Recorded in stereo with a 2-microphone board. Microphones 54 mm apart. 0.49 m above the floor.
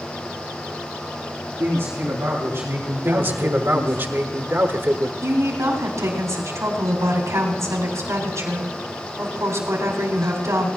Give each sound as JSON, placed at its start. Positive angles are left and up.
{"t": 1.6, "sound": "a man speaking", "side_deg": -50, "distance_m": 4.5}
{"t": 3.0, "sound": "a man speaking", "side_deg": -45, "distance_m": 1.2}
{"t": 5.2, "sound": "a woman speaking", "side_deg": -70, "distance_m": 3.0}